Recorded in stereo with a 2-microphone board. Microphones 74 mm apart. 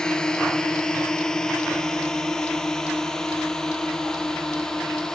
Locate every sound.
0.0 s a drone: 10° left (ahead or behind); by 5.2 s 5° left (ahead or behind)